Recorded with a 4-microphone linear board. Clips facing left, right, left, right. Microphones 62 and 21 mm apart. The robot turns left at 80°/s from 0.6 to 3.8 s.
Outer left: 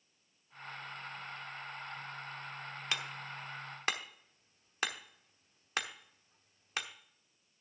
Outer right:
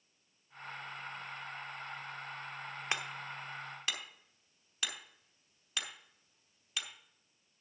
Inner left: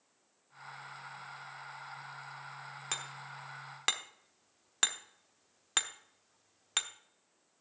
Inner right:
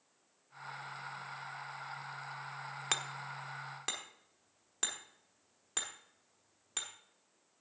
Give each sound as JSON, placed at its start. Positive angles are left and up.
{"t": 2.9, "sound": "hammering", "side_deg": -25, "distance_m": 1.0}